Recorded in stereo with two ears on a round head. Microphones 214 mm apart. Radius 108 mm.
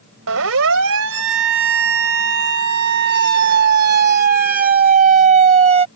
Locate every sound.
0.3 s a siren: 60° right (ahead or behind); by 5.9 s 25° right (ahead or behind)